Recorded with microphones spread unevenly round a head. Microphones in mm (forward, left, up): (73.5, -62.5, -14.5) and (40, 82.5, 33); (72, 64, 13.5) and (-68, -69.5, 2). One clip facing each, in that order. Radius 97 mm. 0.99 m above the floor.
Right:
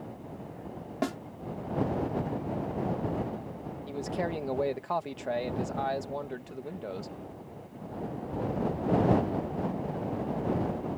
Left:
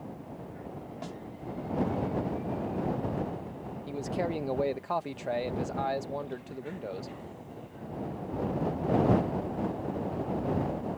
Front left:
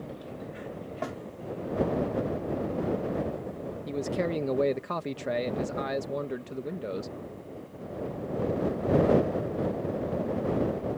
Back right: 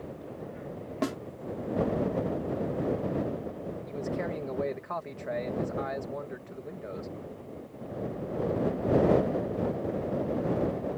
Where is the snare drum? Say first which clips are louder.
Right 12 dB, back right 6 dB; 100° right.